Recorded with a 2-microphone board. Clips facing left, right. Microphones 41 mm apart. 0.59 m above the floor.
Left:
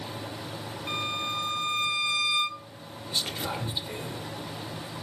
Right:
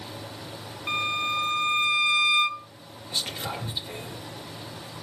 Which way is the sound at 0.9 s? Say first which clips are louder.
Right 5 dB; 30° right (ahead or behind).